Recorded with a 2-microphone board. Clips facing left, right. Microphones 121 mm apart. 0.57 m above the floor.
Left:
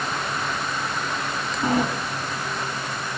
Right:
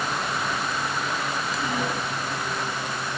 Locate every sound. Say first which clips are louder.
1.6 s a sliding door: left 8 dB; 40° left (ahead or behind), 5 m